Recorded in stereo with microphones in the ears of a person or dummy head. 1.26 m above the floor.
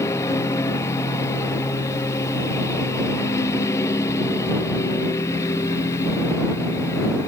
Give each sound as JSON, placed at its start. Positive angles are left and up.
{"t": 0.0, "sound": "a lawn mower", "side_deg": 15}